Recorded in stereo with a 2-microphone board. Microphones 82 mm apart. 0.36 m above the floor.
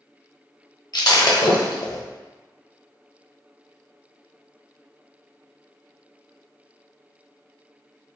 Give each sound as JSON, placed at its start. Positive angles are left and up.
{"t": 0.9, "sound": "breaking glass", "side_deg": 60, "distance_m": 0.8}